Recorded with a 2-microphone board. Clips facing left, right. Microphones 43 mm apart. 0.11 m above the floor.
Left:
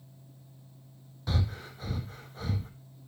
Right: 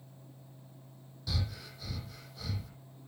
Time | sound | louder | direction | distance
1.3 | breathing | left 5 dB | 40° left (ahead or behind) | 1.6 m